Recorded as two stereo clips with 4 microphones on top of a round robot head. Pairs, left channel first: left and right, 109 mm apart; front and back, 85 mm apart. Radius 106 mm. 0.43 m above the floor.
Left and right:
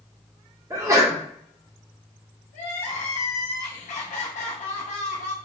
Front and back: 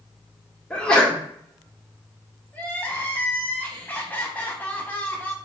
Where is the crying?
70° left, 0.7 m.